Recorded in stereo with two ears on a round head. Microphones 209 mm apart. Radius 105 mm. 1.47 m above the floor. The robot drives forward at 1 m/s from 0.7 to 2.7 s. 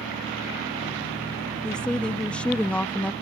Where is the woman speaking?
5° left (ahead or behind).